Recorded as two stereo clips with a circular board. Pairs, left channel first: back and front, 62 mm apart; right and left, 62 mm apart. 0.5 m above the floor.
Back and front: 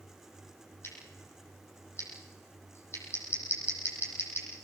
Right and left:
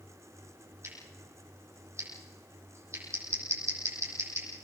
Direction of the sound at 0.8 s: 130° left.